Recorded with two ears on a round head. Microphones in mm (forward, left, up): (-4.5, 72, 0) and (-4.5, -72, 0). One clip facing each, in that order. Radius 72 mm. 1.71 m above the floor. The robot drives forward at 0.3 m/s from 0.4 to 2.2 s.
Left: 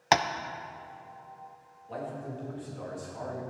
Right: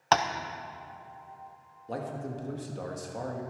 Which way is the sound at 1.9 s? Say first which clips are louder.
Right 2 dB; 50° right (ahead or behind).